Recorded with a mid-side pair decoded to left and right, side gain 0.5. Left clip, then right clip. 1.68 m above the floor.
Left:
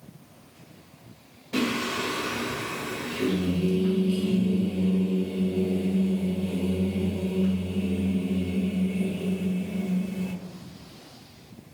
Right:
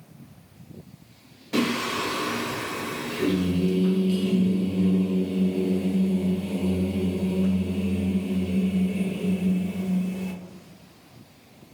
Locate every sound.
1.5 s singing: 25° right, 1.2 m